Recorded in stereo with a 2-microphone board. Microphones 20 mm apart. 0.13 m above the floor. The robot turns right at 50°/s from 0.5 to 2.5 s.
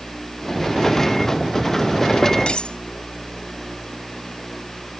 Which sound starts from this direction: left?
Cutlery clinking, at 2.5 s.